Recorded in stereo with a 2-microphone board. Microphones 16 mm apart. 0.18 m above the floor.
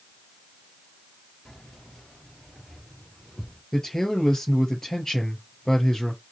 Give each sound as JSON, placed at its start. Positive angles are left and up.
{"t": 1.4, "sound": "keys jangling", "side_deg": 50, "distance_m": 2.5}
{"t": 3.7, "sound": "a man speaking", "side_deg": 25, "distance_m": 4.0}